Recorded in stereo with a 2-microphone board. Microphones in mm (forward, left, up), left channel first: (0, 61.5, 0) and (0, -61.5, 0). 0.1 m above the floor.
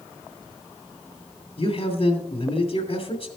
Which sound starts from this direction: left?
A man speaking, at 1.6 s.